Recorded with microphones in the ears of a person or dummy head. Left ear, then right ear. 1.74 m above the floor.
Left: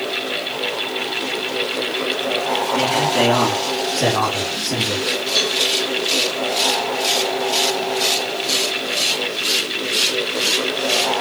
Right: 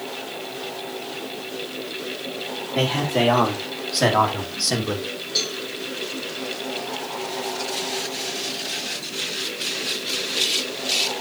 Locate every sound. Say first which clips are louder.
2.8 s a man speaking: left 2 dB; 25° right (ahead or behind), 3.5 m; by 5.1 s 60° right (ahead or behind), 2.0 m
5.3 s a cowbell: left 5 dB; centre (ahead or behind), 4.5 m